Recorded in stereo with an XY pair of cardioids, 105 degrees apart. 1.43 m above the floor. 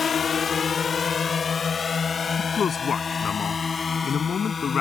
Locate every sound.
0.0 s a drone: 50° left; by 4.8 s 40° left
2.4 s a man speaking: 50° left